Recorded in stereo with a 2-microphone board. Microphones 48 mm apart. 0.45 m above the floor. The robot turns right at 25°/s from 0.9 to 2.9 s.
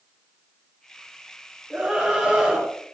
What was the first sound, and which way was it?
A scream, 10° right (ahead or behind).